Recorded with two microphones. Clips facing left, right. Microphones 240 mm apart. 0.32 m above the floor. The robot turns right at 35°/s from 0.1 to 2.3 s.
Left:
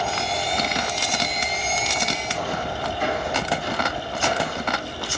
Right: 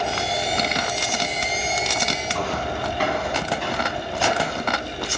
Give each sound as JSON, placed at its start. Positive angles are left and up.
{"t": 2.3, "sound": "footsteps", "side_deg": -80, "distance_m": 5.0}